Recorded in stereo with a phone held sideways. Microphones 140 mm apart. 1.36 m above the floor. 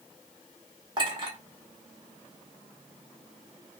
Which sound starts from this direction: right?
A clink, at 1.0 s.